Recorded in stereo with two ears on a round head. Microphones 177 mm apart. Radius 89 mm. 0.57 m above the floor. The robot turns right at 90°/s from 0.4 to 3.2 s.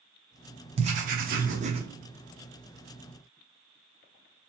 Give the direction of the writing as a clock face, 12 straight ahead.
5 o'clock.